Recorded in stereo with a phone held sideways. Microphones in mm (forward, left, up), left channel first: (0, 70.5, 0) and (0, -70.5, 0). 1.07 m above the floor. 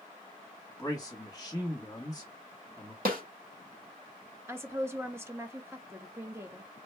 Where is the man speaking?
15° left (ahead or behind), 1.0 m.